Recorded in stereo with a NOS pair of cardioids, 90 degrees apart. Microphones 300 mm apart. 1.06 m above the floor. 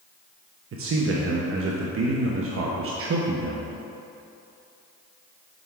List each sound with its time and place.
0.7 s a man speaking: 45° right, 1.0 m